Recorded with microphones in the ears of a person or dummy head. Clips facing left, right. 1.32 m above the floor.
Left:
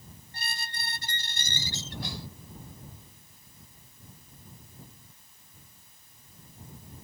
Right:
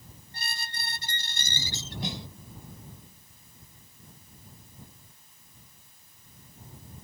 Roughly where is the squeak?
Right.